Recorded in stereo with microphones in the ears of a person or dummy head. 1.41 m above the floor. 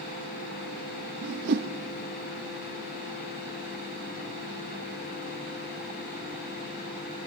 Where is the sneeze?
No sneeze in this recording.